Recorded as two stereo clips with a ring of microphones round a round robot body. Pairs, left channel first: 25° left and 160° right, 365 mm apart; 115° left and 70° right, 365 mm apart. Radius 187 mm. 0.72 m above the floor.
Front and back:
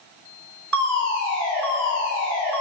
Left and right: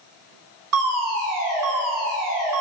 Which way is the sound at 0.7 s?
115° right.